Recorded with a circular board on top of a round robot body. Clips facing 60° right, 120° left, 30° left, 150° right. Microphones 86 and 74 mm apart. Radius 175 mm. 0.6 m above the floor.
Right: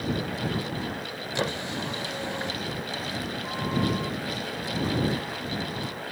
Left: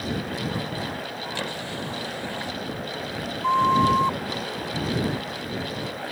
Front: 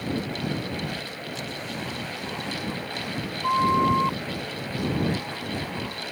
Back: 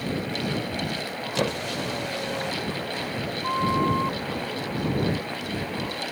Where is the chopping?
I don't hear chopping.